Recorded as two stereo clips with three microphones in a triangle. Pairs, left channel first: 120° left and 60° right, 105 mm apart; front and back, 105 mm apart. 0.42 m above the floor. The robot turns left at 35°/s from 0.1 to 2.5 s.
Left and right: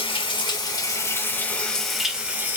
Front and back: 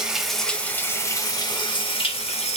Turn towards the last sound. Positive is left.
turn(degrees=10)